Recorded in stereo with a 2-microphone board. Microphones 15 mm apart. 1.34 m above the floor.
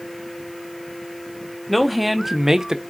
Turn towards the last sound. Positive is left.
turn(degrees=-50)  # may be behind; listen again after turning